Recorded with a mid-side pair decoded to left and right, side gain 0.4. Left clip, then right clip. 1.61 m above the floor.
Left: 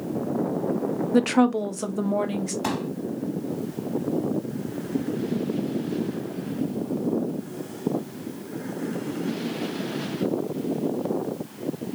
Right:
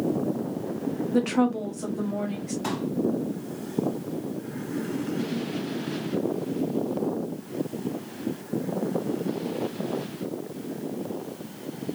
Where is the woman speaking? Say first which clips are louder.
Left 4 dB; 40° left, 0.7 m; by 2.5 s 70° left, 1.5 m.